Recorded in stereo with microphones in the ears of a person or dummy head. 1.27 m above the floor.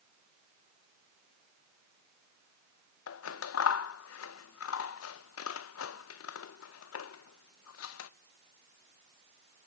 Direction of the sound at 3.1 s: 75° left (ahead or behind).